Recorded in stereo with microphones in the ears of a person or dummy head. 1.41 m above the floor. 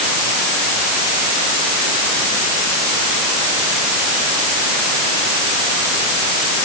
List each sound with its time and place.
Only background noise.